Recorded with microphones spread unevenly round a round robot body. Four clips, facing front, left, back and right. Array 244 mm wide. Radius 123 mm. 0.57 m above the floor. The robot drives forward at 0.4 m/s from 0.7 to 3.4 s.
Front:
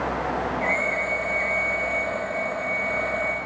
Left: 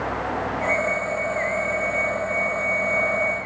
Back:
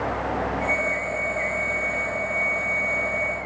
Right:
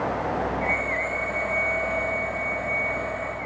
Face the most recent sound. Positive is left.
No sound to turn to.